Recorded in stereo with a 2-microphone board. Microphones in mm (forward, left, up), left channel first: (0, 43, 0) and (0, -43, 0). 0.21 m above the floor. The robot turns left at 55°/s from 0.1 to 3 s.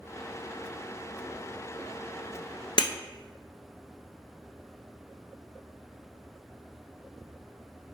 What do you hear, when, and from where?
2.8 s breaking glass: 65° left (ahead or behind), 0.5 m; by 2.9 s 75° left (ahead or behind), 0.5 m